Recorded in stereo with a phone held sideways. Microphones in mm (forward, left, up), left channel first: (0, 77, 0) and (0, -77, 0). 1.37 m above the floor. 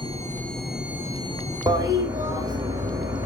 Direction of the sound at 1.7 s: 25° right (ahead or behind).